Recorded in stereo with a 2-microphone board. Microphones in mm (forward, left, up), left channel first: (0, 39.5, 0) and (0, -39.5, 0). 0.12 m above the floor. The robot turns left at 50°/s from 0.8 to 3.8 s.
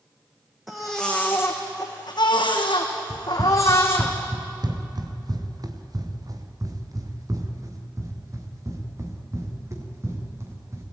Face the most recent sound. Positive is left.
turn(degrees=-35)  # may be behind; listen again after turning